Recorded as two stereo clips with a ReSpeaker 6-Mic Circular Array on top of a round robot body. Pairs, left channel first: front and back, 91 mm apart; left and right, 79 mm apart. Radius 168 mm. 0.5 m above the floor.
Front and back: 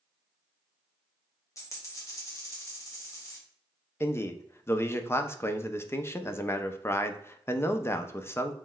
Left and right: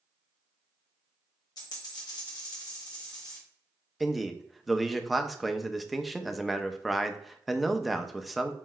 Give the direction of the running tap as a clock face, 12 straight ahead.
I don't hear a running tap.